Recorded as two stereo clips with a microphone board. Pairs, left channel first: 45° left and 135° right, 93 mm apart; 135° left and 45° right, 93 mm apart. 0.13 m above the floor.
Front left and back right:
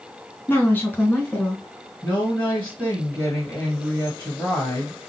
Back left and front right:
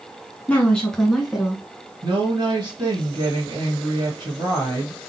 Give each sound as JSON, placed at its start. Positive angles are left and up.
{"t": 0.5, "sound": "a woman speaking", "azimuth_deg": 80, "distance_m": 1.3}
{"t": 2.0, "sound": "a woman speaking", "azimuth_deg": -20, "distance_m": 2.5}